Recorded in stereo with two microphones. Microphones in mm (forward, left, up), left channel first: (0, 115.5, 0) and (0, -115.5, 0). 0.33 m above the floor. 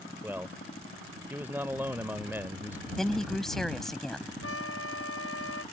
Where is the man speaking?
10° right (ahead or behind).